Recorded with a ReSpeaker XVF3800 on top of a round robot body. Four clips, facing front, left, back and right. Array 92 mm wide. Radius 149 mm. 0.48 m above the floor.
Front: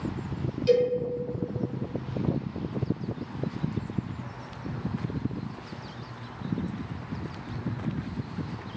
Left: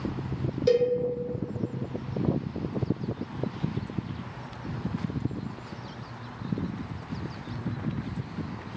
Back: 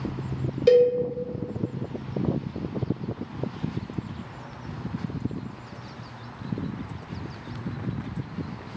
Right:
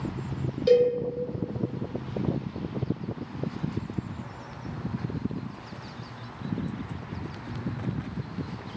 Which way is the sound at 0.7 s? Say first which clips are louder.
Right 3 dB, back 6 dB; 170° left.